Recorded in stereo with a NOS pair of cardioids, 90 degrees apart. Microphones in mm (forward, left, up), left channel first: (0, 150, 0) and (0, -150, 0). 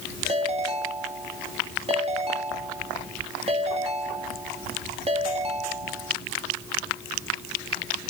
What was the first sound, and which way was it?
A ringtone, 20° right.